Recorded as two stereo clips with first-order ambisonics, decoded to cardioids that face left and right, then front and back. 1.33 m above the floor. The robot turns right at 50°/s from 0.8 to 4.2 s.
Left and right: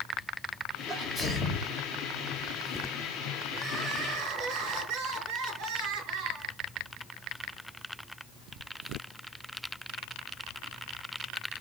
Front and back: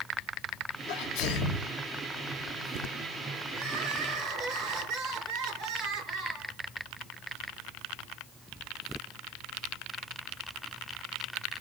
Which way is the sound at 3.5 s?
165° right.